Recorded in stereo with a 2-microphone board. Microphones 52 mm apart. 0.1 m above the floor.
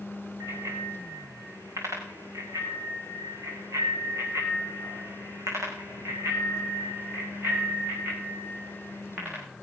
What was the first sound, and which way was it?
A bicycle bell, 65° right (ahead or behind).